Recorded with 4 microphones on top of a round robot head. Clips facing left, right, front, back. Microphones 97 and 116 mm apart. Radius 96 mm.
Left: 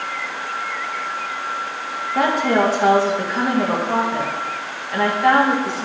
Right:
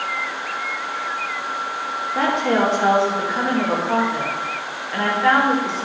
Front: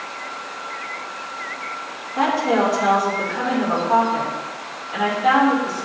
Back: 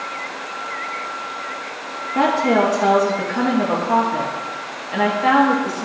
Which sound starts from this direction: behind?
A woman speaking, at 2.1 s.